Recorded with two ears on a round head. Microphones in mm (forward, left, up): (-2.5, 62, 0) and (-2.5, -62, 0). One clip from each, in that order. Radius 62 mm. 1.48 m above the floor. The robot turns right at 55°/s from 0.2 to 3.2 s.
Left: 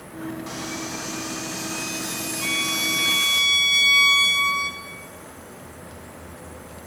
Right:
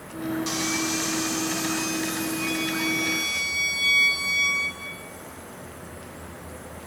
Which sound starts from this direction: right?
Sawing, at 0.5 s.